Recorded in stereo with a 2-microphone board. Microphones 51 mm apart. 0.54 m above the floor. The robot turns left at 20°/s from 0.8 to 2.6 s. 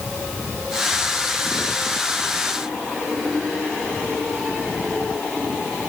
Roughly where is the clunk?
I don't hear a clunk.